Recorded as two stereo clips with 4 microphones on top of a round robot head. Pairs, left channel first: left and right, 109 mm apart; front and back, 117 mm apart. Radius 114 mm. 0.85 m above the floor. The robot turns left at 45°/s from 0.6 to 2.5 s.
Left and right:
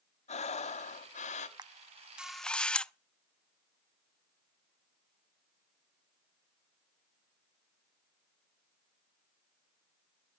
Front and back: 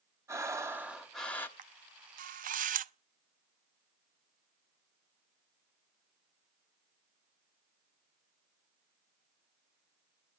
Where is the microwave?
No microwave in this recording.